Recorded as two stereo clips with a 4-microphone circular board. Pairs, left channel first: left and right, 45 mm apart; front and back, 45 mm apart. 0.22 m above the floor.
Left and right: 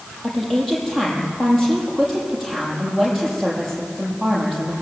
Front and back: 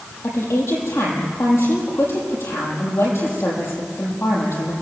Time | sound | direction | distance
0.2 | a woman speaking | 5° left | 8.5 m